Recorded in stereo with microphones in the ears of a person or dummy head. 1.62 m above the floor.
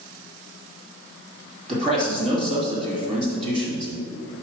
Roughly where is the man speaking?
Right.